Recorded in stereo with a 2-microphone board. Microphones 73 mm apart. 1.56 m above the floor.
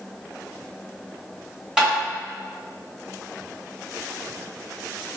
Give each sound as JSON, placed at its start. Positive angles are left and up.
{"t": 1.8, "sound": "tapping", "side_deg": -10, "distance_m": 1.6}